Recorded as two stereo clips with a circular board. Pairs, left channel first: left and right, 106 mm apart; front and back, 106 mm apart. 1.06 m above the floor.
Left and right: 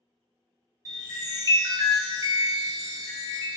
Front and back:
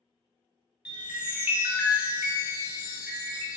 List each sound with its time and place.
0.8 s a chime: 110° right, 0.6 m